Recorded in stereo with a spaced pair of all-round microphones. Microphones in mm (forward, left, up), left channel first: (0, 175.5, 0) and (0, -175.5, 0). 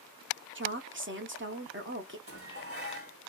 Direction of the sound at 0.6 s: 35° right (ahead or behind).